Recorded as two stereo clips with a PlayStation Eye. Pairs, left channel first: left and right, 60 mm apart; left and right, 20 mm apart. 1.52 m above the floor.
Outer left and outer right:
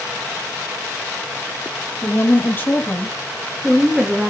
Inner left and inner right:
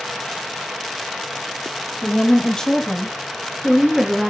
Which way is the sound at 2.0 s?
45° left (ahead or behind).